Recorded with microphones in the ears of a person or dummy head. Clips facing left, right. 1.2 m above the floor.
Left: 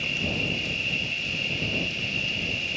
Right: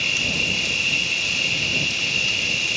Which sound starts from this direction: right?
An insect, at 0.0 s.